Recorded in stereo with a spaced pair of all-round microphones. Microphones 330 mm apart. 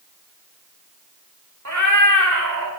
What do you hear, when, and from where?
1.6 s a cat meowing: 55° right (ahead or behind), 2 m; by 2.7 s 75° right (ahead or behind), 2 m